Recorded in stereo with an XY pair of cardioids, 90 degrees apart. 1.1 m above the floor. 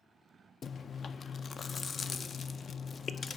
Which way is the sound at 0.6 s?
50° left.